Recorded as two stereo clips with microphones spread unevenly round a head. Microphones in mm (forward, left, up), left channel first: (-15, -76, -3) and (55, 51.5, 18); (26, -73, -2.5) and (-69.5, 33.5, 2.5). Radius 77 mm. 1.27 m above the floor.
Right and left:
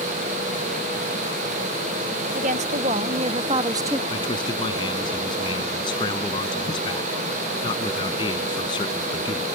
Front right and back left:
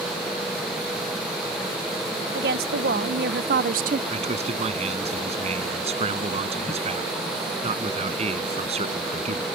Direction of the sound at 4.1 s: 175° left.